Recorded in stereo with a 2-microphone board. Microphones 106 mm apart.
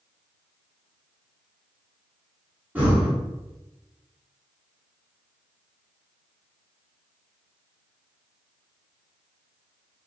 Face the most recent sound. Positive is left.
turn(degrees=-15)  # may be behind; listen again after turning